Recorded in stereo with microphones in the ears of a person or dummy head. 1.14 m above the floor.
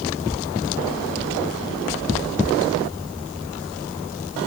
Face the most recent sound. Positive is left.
No sound to turn to.